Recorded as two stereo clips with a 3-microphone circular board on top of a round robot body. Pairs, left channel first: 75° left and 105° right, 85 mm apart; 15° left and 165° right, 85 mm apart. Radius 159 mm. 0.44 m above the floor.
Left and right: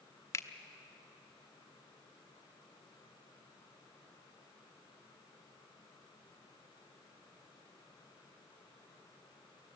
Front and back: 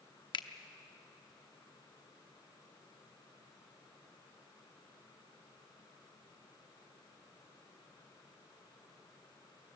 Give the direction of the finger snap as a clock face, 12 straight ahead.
11 o'clock.